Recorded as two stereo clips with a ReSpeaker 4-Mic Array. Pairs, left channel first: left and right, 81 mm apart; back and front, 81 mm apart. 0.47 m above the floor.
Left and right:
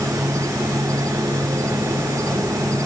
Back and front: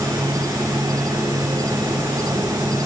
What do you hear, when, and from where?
0.0 s an insect: 45° right